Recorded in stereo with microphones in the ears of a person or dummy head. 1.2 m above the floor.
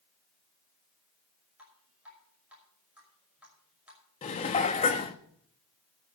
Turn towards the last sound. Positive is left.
turn(degrees=30)  # may be behind; listen again after turning